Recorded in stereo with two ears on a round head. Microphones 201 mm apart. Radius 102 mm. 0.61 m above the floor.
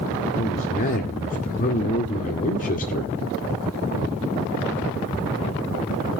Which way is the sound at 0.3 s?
40° left (ahead or behind).